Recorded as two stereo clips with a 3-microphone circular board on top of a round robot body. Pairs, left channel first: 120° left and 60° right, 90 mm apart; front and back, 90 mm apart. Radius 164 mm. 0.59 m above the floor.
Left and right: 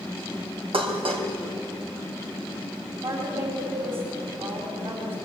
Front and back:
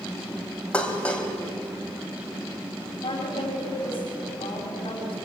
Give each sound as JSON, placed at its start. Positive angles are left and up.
{"t": 0.7, "sound": "dishes clattering", "azimuth_deg": -80, "distance_m": 3.0}
{"t": 3.0, "sound": "a woman speaking", "azimuth_deg": -35, "distance_m": 5.0}